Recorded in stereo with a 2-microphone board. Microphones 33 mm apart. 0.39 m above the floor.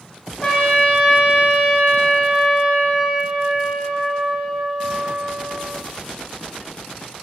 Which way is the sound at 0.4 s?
20° left (ahead or behind).